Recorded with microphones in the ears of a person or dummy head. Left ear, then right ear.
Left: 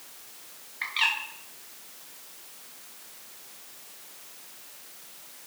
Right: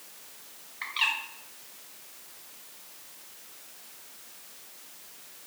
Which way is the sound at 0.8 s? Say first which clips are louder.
Left 2 dB; 5° left (ahead or behind).